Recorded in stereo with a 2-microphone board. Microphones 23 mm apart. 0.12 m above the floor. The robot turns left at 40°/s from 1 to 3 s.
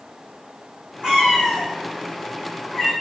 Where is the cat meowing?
45° right (ahead or behind), 1.7 m; by 2.9 s 25° left (ahead or behind), 1.7 m.